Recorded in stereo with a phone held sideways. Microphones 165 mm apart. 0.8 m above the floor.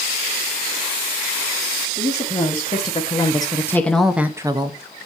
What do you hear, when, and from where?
1.9 s a woman speaking: 40° left (ahead or behind), 1.8 m; by 4.8 s 30° right (ahead or behind), 0.8 m